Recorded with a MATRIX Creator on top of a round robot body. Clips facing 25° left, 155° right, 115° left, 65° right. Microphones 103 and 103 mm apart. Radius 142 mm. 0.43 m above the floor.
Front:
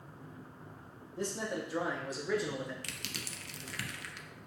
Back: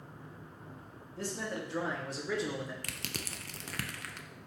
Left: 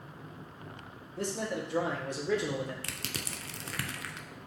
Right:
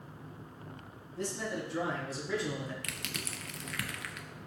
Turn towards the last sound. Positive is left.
turn(degrees=165)